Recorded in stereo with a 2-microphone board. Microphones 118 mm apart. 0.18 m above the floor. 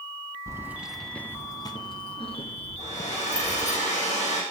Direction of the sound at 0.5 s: 25° right (ahead or behind).